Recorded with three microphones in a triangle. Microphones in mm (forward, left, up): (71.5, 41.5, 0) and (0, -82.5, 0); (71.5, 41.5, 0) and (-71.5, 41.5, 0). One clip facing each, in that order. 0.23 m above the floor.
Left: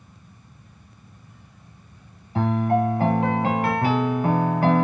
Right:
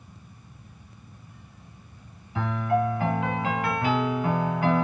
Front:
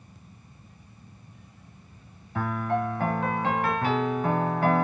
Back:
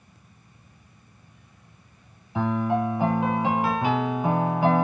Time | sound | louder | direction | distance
2.4 | a piano | left 4 dB, back 4 dB | 100° left | 0.7 m